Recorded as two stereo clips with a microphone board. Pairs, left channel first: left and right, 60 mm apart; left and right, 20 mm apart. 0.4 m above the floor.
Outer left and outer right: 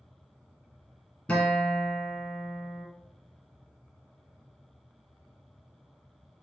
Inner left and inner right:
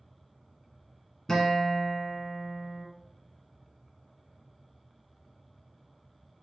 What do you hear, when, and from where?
1.3 s a guitar: 20° left (ahead or behind), 1.2 m